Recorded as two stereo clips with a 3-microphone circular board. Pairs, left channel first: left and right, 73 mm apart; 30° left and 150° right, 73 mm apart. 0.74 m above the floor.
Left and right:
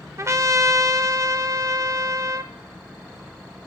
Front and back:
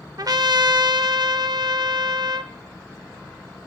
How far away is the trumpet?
About 0.6 m.